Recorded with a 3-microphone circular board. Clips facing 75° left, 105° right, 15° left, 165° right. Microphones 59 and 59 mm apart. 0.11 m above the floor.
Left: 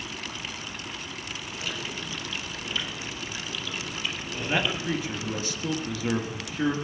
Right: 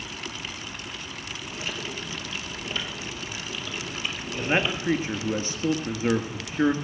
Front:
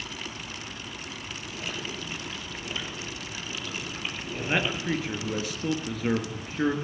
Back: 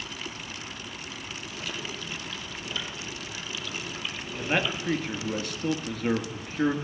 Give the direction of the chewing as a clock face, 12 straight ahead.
1 o'clock.